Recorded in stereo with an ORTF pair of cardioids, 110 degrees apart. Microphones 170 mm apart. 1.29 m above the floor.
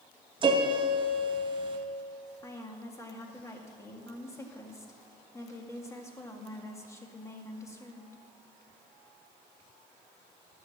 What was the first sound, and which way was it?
A piano, 30° right.